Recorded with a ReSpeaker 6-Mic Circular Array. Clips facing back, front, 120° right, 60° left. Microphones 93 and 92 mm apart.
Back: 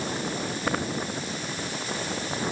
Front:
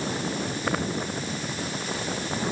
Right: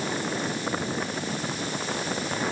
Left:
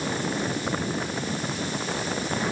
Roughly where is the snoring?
No snoring in this recording.